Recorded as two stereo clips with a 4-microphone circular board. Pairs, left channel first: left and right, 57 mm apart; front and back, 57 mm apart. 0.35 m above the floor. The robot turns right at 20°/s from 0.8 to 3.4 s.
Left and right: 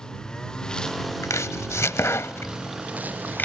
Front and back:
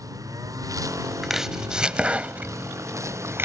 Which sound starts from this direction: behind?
A lawn mower, at 0.0 s.